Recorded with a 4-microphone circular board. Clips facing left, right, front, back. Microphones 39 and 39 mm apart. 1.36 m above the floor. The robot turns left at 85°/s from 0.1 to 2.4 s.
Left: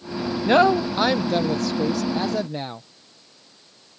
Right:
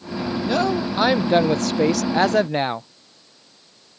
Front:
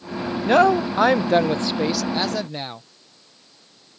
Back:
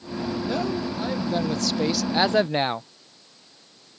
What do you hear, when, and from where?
0.5 s a woman speaking: 40° left; by 2.9 s 125° right